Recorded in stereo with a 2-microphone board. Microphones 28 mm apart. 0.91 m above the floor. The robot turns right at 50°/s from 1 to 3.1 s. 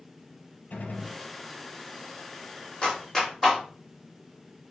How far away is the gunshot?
About 4 m.